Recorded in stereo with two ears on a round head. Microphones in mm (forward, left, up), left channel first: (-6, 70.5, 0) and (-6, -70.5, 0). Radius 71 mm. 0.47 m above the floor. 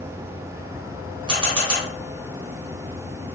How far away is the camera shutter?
About 1.3 m.